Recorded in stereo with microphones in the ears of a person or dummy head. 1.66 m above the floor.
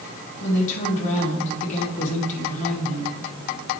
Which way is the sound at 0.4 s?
40° left (ahead or behind).